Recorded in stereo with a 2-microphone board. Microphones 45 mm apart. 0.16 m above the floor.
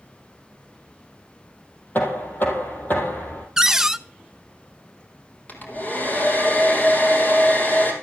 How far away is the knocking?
About 3.5 m.